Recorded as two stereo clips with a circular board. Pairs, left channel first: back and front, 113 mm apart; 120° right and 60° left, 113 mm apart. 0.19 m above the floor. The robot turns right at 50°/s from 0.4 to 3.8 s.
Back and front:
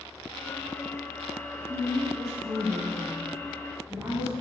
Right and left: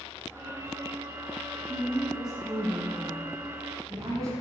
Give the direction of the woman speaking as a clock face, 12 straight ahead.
2 o'clock.